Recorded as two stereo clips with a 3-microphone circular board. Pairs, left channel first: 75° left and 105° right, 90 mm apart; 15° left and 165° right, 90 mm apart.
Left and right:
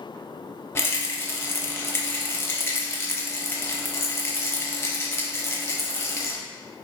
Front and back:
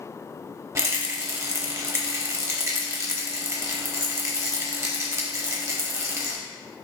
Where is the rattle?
140° left, 0.7 m.